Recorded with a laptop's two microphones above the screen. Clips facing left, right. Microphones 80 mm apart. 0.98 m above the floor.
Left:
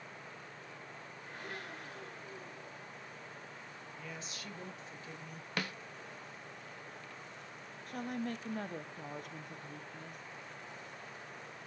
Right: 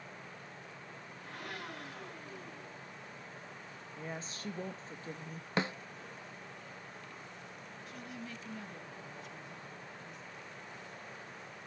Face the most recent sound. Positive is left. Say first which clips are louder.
# left 9 dB
turn(degrees=50)  # may be behind; listen again after turning